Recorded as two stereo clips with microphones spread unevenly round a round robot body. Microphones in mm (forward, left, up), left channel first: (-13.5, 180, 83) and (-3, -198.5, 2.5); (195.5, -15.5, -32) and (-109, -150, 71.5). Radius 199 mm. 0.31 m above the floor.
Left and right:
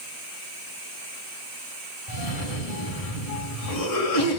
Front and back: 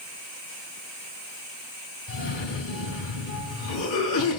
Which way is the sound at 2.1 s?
60° left.